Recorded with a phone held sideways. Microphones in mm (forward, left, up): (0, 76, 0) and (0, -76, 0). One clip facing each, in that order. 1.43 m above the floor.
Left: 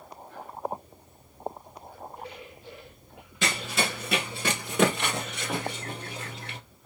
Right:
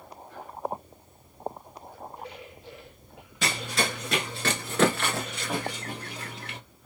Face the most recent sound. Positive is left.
turn(degrees=25)  # may be behind; listen again after turning